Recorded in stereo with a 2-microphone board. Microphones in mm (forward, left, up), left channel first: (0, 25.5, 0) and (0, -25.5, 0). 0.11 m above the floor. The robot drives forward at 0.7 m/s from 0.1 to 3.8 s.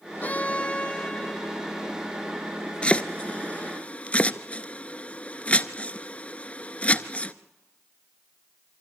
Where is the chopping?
25° left (ahead or behind), 0.8 m.